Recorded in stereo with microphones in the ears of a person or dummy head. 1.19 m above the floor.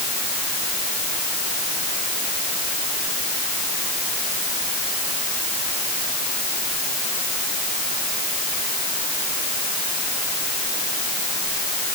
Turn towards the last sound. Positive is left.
No sound to turn to.